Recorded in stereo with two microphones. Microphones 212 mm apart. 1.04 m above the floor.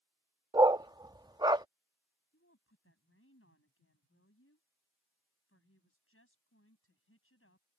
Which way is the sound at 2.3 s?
85° left.